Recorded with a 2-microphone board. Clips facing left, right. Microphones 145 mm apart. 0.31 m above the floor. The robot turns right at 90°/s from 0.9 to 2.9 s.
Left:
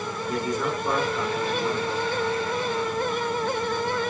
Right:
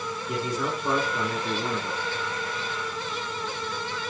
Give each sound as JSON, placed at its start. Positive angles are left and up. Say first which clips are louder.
{"t": 0.3, "sound": "a man speaking", "louder": "left 2 dB", "azimuth_deg": -175, "distance_m": 3.5}